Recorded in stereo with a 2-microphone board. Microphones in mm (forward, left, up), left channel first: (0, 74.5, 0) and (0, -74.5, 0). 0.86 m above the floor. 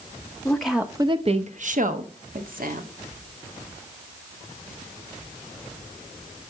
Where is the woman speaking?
10° left (ahead or behind), 0.8 m; by 2.9 s 75° right (ahead or behind), 1.8 m.